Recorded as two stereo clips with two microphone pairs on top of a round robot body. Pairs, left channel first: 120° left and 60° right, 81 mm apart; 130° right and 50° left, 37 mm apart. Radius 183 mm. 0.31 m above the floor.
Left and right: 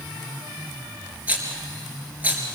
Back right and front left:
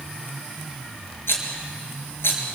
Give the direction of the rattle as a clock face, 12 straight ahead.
4 o'clock.